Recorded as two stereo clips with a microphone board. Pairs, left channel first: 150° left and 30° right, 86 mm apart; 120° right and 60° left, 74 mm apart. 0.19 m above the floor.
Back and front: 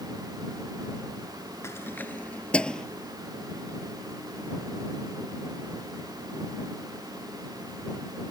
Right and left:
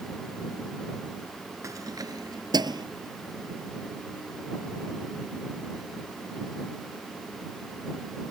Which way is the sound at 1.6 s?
95° left.